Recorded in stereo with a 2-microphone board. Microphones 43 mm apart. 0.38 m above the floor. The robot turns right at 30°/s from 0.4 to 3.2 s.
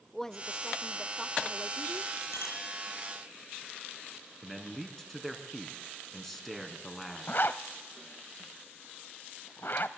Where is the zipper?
50° left (ahead or behind), 0.9 m.